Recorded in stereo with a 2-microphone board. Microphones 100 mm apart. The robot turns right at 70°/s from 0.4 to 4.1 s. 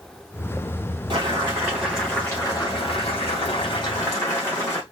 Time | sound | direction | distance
1.1 | boiling | 60° right | 2.5 m